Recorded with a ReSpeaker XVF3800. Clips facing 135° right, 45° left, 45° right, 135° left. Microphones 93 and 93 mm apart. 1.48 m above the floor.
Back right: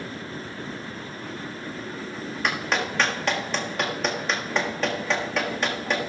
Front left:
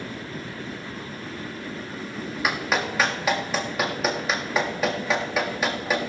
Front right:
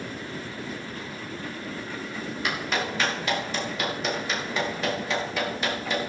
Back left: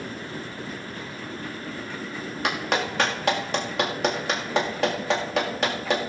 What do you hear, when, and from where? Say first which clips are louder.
2.4 s a clap: front left 1 dB, back left 4 dB; 130° left, 1.7 m